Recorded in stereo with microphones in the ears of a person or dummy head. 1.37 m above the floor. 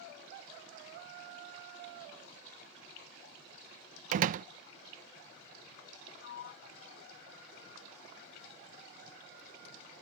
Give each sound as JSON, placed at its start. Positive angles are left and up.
{"t": 4.1, "sound": "a door slam", "side_deg": -50}
{"t": 6.2, "sound": "a sliding door", "side_deg": 70}